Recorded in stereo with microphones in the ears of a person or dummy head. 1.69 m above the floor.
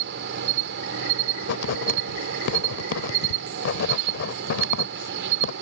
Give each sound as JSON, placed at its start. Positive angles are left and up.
{"t": 0.0, "sound": "an insect", "side_deg": -65}
{"t": 1.4, "sound": "writing", "side_deg": 65}